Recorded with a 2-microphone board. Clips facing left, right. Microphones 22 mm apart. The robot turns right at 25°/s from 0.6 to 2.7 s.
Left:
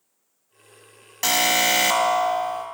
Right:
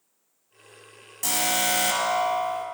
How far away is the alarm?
About 1.0 m.